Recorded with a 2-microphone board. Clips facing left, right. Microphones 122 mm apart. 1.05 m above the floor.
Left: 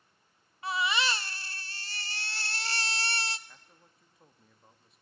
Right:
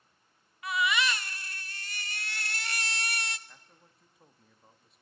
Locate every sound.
0.6 s a baby crying: 30° left (ahead or behind), 0.6 m
3.5 s a man speaking: centre (ahead or behind), 1.6 m